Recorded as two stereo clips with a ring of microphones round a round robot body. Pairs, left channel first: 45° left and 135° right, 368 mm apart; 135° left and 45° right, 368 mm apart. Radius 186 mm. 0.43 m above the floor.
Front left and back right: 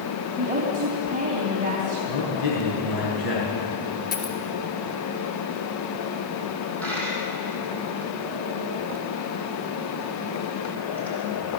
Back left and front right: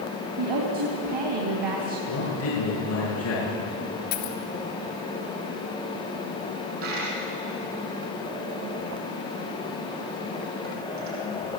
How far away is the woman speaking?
About 3.5 m.